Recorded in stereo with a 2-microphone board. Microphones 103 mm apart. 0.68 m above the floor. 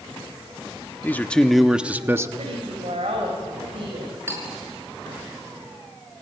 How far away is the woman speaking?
About 4 m.